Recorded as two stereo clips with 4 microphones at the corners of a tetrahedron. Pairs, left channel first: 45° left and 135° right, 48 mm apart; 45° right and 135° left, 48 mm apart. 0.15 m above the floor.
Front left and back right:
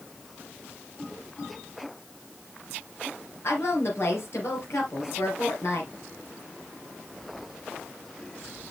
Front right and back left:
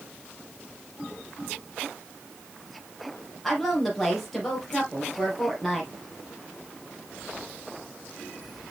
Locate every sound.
3.4 s a woman speaking: 40° left, 3.5 m